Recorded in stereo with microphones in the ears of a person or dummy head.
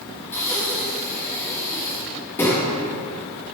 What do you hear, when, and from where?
0.3 s breathing: 15° left (ahead or behind), 1.7 m